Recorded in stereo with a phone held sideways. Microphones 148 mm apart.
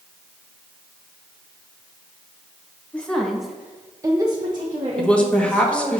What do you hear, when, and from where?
2.9 s a woman speaking: 10° left (ahead or behind), 1.5 m; by 6.0 s 25° right (ahead or behind), 3 m
5.0 s a woman speaking: 10° left (ahead or behind), 1.1 m